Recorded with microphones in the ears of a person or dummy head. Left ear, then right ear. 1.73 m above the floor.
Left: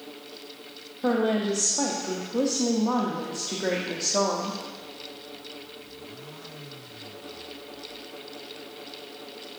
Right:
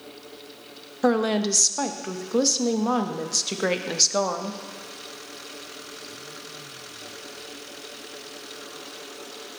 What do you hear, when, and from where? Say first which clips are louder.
1.0 s a woman speaking: right 2 dB; 70° right (ahead or behind), 0.6 m